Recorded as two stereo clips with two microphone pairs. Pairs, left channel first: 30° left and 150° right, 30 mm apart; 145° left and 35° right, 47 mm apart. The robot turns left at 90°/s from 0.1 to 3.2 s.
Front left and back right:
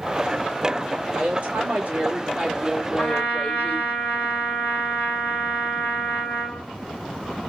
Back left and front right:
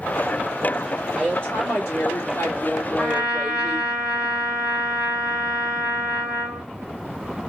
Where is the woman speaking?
120° right, 1.9 m; by 3.9 s 55° left, 1.9 m.